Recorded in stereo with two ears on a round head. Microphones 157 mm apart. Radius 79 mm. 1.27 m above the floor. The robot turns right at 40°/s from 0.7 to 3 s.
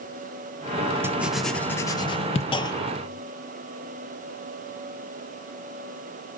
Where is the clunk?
30° left (ahead or behind), 0.7 m; by 3.2 s 10° left (ahead or behind), 0.7 m.